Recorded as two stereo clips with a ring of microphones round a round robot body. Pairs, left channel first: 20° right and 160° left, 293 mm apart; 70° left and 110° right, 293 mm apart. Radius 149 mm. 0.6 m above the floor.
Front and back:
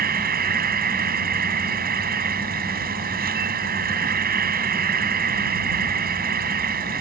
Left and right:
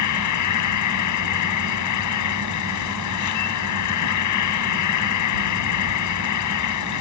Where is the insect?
95° left.